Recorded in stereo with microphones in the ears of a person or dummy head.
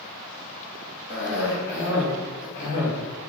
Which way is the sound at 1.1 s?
60° left (ahead or behind).